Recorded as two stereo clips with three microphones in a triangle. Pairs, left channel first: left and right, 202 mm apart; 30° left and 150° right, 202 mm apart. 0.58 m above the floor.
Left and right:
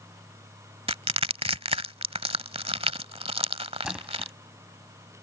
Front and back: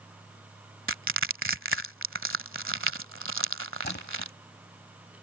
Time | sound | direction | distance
0.9 | crushing | 150° right | ?
3.8 | a splash | 5° right | ?